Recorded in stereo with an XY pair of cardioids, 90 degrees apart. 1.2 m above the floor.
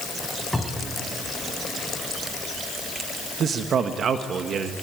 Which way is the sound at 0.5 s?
10° left.